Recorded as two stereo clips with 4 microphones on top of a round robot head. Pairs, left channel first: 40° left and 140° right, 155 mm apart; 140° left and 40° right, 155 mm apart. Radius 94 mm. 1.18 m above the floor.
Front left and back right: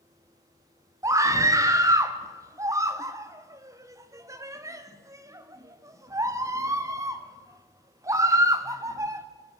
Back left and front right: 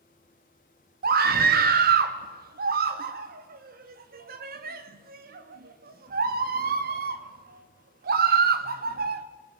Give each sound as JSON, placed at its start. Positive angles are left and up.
{"t": 1.0, "sound": "a scream", "azimuth_deg": -70, "distance_m": 2.0}